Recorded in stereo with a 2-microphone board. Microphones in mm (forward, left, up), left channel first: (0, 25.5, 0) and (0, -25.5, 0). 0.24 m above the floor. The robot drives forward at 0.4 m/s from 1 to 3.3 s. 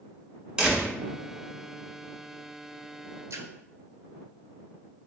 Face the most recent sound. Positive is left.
turn(degrees=-70)  # may be behind; listen again after turning